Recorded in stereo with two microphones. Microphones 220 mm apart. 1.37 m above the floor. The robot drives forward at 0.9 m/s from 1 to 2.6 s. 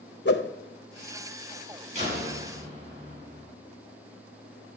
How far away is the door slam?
About 9.5 m.